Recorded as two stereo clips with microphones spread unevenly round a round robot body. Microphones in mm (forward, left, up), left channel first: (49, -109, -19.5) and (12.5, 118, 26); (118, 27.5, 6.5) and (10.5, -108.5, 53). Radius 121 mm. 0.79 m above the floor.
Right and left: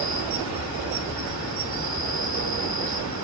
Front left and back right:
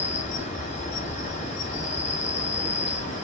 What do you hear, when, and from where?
0.0 s an insect: 100° left, 1.1 m